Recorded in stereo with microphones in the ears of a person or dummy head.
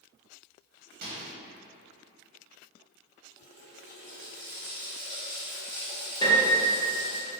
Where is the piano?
20° left (ahead or behind), 1.0 m.